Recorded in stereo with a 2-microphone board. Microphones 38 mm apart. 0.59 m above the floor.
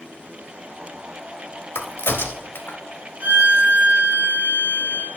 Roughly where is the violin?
Right.